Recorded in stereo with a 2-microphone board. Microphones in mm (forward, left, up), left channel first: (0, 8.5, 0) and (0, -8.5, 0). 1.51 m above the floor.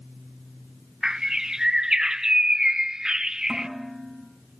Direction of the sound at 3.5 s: 10° right (ahead or behind).